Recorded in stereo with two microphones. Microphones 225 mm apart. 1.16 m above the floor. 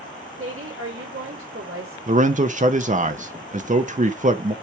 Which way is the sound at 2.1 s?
35° right (ahead or behind).